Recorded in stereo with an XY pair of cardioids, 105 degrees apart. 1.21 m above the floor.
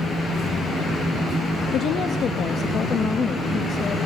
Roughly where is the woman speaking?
Ahead left.